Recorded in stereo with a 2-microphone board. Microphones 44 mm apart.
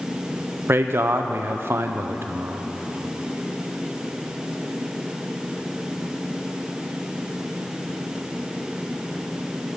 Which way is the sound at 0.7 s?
60° right (ahead or behind).